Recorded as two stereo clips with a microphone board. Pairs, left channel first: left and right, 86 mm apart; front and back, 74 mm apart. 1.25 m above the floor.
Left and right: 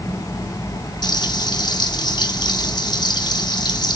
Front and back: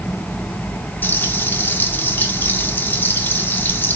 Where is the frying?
60° left, 3.5 m.